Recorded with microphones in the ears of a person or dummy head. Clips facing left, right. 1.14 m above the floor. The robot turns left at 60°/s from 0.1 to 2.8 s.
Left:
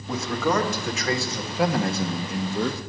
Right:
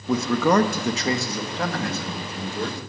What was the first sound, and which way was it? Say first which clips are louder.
A man speaking: right 5 dB; 95° right.